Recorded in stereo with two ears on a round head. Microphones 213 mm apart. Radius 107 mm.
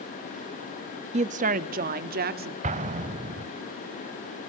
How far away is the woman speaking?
About 0.8 m.